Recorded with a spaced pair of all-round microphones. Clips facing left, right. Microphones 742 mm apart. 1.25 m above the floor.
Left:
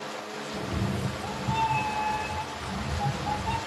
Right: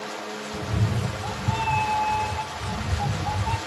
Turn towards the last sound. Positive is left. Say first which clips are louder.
# right 1 dB
turn(degrees=-30)  # may be behind; listen again after turning